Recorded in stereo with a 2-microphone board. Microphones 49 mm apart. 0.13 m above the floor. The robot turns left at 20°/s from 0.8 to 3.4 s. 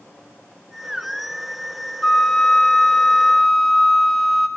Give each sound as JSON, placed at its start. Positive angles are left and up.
{"t": 2.0, "sound": "a flute", "side_deg": 15, "distance_m": 0.7}